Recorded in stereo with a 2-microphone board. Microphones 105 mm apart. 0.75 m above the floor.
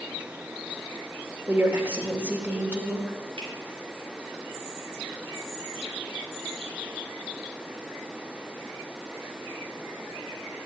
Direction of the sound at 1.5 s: 20° right (ahead or behind).